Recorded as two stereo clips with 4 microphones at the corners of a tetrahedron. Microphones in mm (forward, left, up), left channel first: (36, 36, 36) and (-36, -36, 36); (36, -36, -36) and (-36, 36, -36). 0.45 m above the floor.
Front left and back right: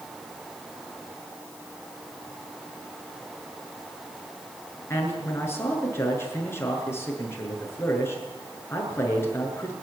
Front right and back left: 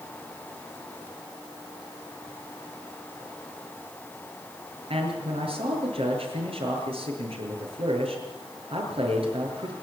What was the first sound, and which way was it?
A man speaking, 110° left.